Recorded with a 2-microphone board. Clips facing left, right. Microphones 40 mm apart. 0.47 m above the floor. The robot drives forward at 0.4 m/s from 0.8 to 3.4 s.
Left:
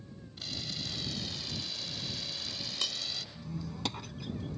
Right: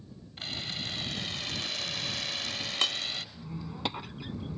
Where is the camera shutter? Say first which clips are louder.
Right 3 dB; 45° right (ahead or behind).